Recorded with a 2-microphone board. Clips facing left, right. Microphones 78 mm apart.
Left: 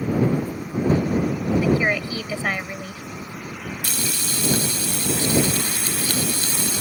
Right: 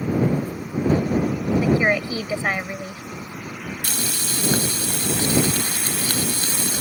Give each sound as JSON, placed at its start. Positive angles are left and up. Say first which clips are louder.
{"t": 1.6, "sound": "a woman speaking", "louder": "right 2 dB", "side_deg": -15}
{"t": 3.8, "sound": "frying", "louder": "even", "side_deg": -55}